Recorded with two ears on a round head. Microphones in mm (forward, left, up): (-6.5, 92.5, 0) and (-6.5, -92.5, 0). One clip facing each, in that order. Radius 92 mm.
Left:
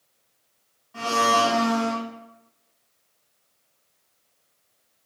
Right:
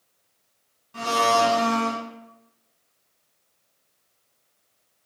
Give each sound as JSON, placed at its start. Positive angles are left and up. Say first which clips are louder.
{"t": 0.9, "sound": "a blender", "louder": "right 1 dB", "side_deg": -30, "distance_m": 1.8}